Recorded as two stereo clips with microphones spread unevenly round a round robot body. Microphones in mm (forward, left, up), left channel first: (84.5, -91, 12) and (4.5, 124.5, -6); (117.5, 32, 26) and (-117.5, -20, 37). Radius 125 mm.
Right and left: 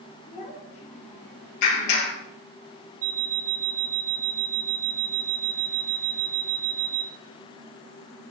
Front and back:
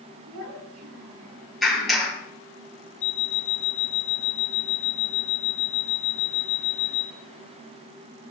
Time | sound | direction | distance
0.3 | a child speaking | 130° right | 6 m
1.6 | a clap | 80° right | 7.5 m
3.0 | an alarm clock | 75° left | 1.5 m